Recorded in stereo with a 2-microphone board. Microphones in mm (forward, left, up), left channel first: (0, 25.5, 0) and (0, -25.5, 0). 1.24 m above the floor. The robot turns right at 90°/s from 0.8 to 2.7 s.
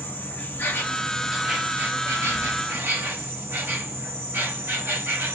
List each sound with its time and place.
0.0 s an insect: 135° left, 0.7 m; by 5.3 s 55° right, 0.7 m